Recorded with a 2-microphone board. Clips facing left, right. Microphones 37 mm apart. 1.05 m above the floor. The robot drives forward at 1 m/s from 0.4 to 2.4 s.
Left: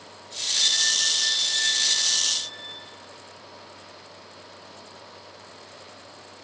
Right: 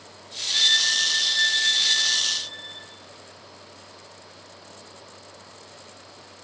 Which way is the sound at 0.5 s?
85° right.